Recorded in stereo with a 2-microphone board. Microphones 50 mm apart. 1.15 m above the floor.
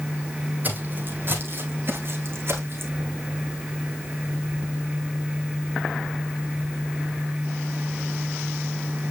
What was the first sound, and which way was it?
Footsteps, 35° right (ahead or behind).